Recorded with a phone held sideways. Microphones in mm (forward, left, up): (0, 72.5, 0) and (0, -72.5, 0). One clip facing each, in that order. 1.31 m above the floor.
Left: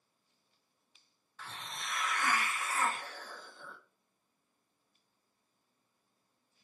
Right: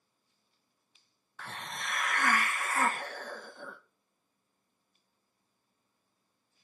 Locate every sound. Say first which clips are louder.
1.4 s a hiss: right 4 dB; 60° right (ahead or behind), 0.7 m